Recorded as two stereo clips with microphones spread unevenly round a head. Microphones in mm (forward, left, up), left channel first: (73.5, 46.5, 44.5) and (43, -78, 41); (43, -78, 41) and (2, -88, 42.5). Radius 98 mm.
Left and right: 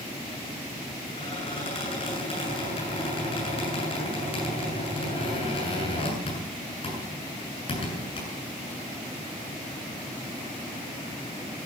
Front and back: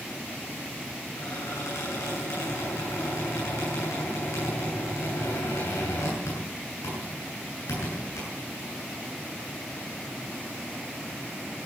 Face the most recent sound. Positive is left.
turn(degrees=35)